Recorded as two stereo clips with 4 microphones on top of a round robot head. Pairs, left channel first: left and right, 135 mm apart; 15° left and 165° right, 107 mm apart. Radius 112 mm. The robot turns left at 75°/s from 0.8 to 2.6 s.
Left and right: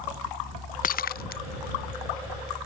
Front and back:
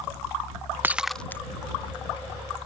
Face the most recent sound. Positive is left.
turn(degrees=-10)